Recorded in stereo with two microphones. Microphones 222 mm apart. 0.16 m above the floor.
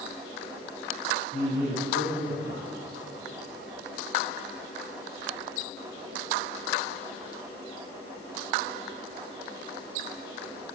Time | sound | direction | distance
1.3 | a man speaking | 40° left (ahead or behind) | 2.5 m